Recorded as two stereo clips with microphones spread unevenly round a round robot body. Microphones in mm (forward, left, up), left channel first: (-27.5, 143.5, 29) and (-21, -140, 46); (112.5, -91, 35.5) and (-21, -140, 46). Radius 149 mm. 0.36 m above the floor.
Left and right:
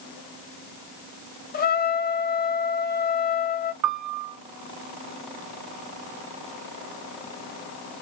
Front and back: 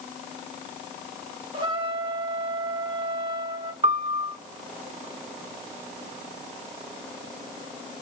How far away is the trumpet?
About 1.1 m.